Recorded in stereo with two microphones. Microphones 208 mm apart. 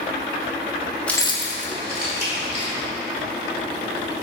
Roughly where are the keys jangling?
Centre.